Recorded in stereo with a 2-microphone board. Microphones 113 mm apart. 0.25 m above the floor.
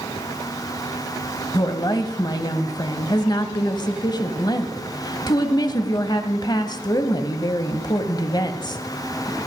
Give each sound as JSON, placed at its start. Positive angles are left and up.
{"t": 1.5, "sound": "a woman speaking", "side_deg": 40, "distance_m": 1.1}